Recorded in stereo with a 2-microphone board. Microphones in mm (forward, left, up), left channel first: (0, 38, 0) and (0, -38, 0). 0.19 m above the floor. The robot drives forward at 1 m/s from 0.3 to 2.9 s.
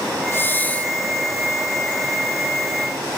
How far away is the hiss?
About 0.8 m.